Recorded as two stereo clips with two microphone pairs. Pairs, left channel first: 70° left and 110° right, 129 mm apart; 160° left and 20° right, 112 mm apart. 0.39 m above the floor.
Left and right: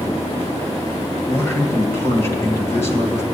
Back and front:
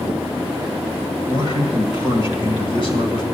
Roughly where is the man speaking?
Behind left.